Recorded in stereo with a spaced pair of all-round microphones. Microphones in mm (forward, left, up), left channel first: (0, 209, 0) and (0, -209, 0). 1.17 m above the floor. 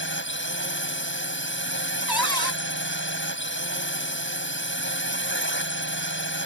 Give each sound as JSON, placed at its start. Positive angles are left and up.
{"t": 0.0, "sound": "a drone", "side_deg": 25}
{"t": 2.1, "sound": "a cupboard door", "side_deg": 60}